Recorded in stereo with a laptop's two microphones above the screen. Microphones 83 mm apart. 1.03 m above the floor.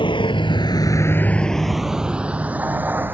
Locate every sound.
0.0 s a vehicle: 85° left; by 3.1 s 25° right (ahead or behind)